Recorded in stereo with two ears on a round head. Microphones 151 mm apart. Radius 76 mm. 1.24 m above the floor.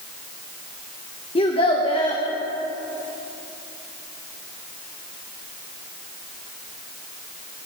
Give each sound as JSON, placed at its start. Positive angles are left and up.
{"t": 1.4, "sound": "a child speaking", "side_deg": 30, "distance_m": 0.8}